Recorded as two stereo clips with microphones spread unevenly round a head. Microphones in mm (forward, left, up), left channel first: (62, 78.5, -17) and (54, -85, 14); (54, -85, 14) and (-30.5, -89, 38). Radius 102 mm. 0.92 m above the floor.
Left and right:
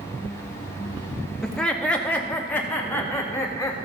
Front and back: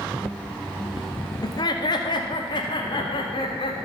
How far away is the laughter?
About 1.6 m.